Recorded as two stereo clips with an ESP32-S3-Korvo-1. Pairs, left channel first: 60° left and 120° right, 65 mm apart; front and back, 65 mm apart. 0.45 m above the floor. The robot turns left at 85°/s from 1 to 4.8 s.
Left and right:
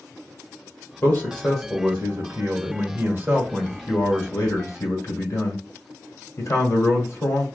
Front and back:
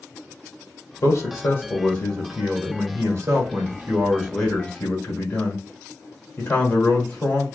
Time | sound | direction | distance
1.0 | a man speaking | 15° left | 1.4 m